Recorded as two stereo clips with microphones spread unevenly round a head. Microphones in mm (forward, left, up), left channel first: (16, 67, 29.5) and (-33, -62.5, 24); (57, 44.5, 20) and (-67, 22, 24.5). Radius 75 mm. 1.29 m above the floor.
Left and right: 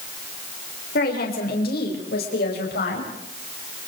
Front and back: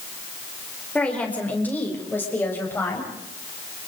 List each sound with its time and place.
0.9 s a woman speaking: 90° left, 5 m; by 3.1 s 85° left, 8 m